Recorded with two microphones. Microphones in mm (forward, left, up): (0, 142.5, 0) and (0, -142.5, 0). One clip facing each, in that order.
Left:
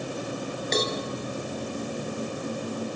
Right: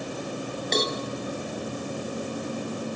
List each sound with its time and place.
0.7 s a cowbell: 5° left (ahead or behind), 3 m